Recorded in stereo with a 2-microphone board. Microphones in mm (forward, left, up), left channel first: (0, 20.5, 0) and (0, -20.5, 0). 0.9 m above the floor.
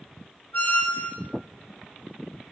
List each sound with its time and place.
0.5 s a squeak: 60° left (ahead or behind), 0.8 m